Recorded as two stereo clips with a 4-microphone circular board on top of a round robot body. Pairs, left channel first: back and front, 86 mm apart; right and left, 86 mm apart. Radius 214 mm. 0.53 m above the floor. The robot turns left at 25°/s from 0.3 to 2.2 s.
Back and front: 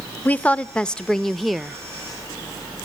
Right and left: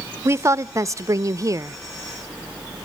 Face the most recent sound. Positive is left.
turn(degrees=75)